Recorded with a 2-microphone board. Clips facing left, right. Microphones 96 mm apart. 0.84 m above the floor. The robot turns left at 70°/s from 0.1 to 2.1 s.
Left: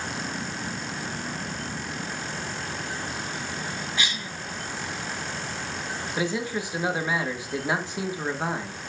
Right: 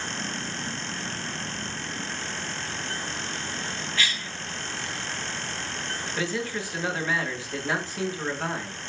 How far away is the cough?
About 0.6 m.